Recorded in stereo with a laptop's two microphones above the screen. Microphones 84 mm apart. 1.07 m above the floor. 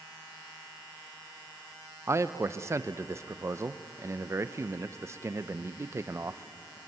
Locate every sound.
2.1 s a man speaking: 35° right (ahead or behind), 0.5 m